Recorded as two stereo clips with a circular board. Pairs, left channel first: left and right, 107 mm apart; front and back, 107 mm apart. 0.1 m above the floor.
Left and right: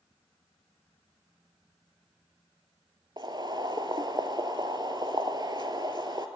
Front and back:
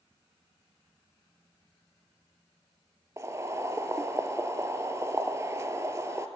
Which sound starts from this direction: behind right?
Boiling, at 3.2 s.